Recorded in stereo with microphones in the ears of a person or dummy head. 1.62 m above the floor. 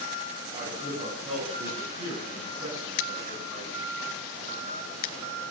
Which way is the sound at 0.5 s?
35° right (ahead or behind).